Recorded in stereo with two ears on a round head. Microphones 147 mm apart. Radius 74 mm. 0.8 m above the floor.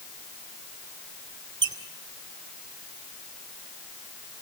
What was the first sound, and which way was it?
A squeak, 25° right (ahead or behind).